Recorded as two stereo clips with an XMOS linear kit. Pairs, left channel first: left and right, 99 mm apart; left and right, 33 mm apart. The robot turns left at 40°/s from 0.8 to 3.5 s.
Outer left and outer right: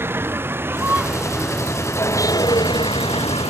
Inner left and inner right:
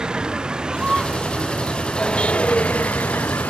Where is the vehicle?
155° right; by 3.5 s 95° left.